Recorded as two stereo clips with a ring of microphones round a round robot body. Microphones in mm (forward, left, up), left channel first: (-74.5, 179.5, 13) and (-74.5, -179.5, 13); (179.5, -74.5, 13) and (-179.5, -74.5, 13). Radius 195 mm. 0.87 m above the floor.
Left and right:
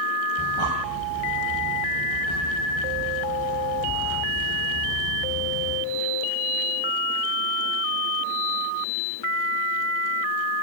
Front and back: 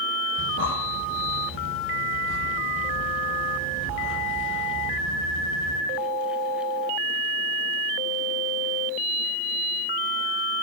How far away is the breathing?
About 9.5 m.